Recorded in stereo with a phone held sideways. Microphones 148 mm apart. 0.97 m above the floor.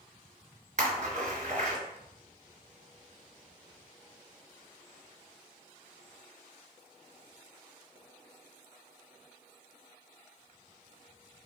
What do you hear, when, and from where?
0.8 s a splash: 65° right (ahead or behind), 1.6 m